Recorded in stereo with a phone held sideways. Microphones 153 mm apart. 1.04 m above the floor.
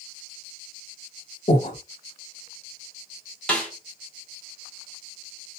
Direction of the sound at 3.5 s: 5° left (ahead or behind).